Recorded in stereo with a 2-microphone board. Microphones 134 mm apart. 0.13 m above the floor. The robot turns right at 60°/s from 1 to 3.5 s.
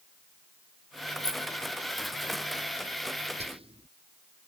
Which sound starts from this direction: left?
Keys jangling, at 1.2 s.